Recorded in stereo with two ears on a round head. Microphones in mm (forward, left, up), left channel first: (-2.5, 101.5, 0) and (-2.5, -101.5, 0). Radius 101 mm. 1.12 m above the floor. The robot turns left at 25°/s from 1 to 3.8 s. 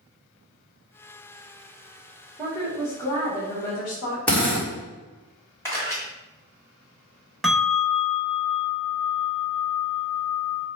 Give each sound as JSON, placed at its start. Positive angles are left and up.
{"t": 2.4, "sound": "a woman speaking", "azimuth_deg": 180, "distance_m": 1.5}
{"t": 4.3, "sound": "a drill", "side_deg": 5, "distance_m": 1.7}
{"t": 5.7, "sound": "a camera shutter", "side_deg": 10, "distance_m": 1.6}
{"t": 7.4, "sound": "a bell", "side_deg": 0, "distance_m": 0.9}